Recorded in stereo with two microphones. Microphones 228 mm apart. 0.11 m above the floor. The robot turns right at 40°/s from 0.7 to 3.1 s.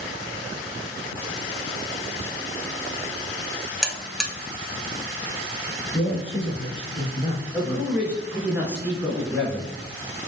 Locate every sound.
3.8 s a buzzer: centre (ahead or behind), 0.6 m
5.9 s a man speaking: 25° left (ahead or behind), 1.2 m
7.5 s a man speaking: 10° right (ahead or behind), 1.2 m